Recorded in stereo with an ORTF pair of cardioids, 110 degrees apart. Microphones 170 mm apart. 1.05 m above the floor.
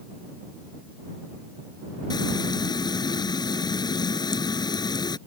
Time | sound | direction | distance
2.1 | frying | 25° left | ?